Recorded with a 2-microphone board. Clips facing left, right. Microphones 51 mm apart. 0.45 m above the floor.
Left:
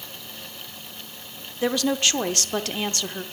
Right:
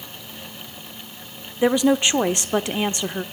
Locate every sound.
1.6 s a woman speaking: 20° right (ahead or behind), 0.8 m